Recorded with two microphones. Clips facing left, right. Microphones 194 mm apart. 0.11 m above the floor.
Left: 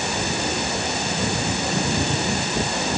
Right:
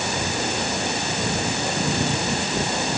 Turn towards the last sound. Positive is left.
No sound to turn to.